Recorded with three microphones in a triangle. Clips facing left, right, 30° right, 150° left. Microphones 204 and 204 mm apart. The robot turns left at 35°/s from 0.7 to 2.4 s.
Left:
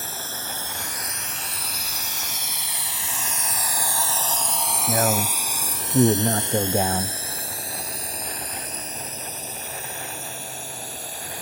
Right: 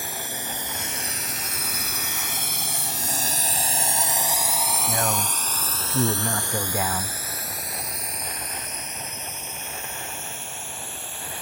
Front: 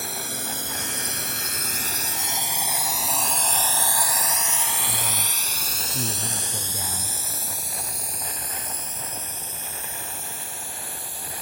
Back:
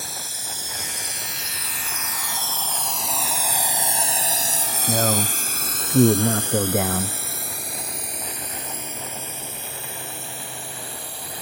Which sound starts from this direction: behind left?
A man speaking, at 4.9 s.